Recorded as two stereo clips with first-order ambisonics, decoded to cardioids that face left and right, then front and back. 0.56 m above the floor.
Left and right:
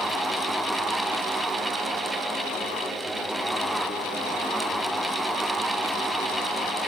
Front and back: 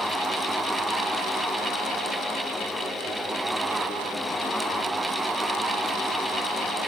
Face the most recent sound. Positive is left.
No sound to turn to.